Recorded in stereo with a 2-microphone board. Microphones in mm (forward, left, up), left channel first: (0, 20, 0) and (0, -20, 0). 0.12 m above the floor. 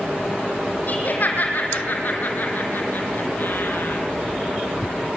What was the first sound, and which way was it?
Laughter, 45° left (ahead or behind).